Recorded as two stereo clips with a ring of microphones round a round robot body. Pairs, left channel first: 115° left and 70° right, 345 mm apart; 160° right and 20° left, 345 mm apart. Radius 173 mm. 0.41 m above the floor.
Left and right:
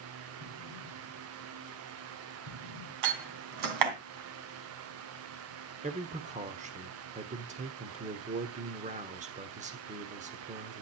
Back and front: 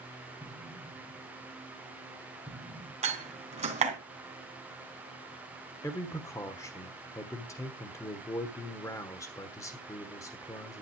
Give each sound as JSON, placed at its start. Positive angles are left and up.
{"t": 0.4, "sound": "an explosion", "azimuth_deg": -70, "distance_m": 6.5}
{"t": 3.0, "sound": "a door slam", "azimuth_deg": -50, "distance_m": 3.0}
{"t": 5.8, "sound": "a man speaking", "azimuth_deg": -90, "distance_m": 1.2}